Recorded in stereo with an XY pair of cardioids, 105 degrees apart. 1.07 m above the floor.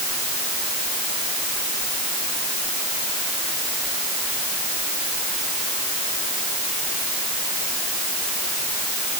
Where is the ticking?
No ticking in this recording.